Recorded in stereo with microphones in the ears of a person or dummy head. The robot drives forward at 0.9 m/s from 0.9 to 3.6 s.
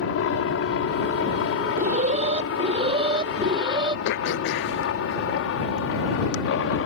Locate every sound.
0.0 s a helicopter: 70° left (ahead or behind); by 6.9 s 65° left (ahead or behind)
1.8 s an alarm: 50° right (ahead or behind); by 4.0 s 30° right (ahead or behind)
4.0 s throat clearing: 60° left (ahead or behind)